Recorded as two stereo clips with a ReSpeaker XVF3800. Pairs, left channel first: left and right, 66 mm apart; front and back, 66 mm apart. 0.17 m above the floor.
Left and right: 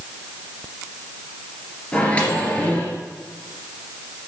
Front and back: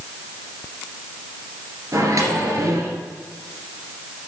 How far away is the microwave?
About 2.5 m.